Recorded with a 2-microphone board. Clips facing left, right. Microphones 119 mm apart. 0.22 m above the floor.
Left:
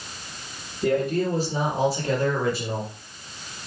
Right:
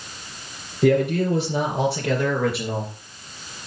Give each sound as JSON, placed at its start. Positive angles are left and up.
{"t": 0.8, "sound": "a man speaking", "side_deg": -70, "distance_m": 3.5}